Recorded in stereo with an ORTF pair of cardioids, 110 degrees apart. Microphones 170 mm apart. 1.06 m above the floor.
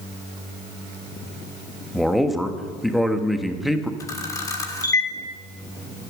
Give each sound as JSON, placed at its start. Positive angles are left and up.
{"t": 1.9, "sound": "a man speaking", "azimuth_deg": 0, "distance_m": 1.2}
{"t": 4.0, "sound": "a camera shutter", "azimuth_deg": 20, "distance_m": 1.6}